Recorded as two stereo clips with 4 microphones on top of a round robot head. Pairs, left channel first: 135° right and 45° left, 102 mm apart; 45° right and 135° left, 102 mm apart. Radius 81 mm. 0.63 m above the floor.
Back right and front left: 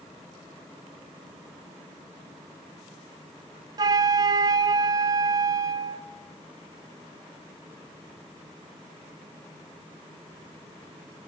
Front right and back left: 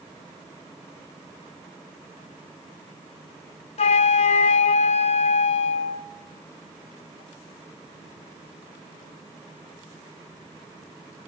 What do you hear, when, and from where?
3.8 s a flute: 15° right, 0.6 m